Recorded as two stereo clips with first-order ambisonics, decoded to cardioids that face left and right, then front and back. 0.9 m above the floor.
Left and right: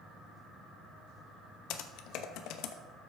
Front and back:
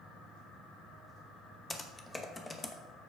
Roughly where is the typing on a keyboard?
Left.